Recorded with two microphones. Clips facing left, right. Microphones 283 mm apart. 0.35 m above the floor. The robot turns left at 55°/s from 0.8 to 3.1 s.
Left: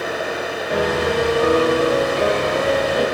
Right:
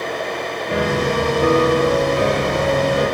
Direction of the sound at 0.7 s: 30° right.